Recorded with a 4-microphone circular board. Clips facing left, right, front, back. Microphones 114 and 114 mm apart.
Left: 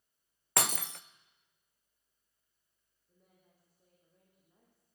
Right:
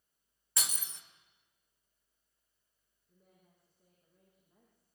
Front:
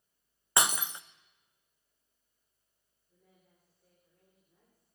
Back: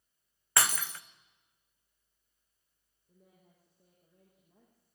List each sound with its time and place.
0.6 s breaking glass: 70° left, 0.7 m
3.1 s a woman speaking: 175° left, 7 m